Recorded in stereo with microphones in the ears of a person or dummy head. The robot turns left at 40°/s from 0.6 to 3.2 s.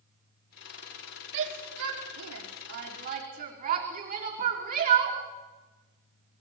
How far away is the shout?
About 4 m.